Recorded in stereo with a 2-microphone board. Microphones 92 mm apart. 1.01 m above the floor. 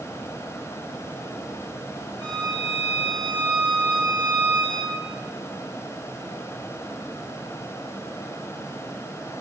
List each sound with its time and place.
2.2 s a violin: 50° right (ahead or behind), 9 m